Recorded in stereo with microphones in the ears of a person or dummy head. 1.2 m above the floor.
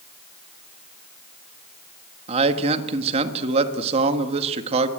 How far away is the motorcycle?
I don't hear a motorcycle.